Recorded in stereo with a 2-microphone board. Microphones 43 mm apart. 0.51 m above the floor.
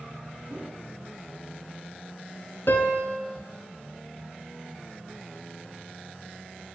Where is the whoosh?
30° right (ahead or behind), 1.9 m.